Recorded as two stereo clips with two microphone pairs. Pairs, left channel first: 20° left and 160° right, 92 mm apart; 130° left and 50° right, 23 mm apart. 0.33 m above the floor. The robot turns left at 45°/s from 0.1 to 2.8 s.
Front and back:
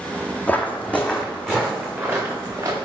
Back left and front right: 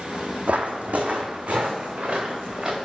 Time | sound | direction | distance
0.5 | footsteps | 50° right | 0.9 m